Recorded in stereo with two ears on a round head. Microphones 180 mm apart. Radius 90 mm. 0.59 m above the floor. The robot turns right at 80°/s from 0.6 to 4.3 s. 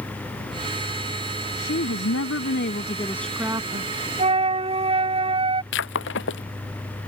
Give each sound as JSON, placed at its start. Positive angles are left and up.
{"t": 1.6, "sound": "a woman speaking", "azimuth_deg": 40}
{"t": 4.2, "sound": "a flute", "side_deg": -35}
{"t": 5.7, "sound": "breaking glass", "side_deg": 70}